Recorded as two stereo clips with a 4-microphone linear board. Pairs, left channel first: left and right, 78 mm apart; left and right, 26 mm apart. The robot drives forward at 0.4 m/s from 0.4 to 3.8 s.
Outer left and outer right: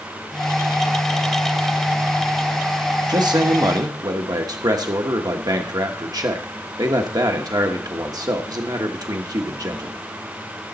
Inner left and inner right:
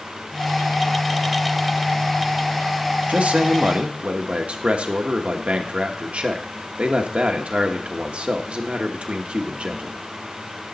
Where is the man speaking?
60° right (ahead or behind), 1.0 m; by 10.0 s 55° right (ahead or behind), 1.1 m.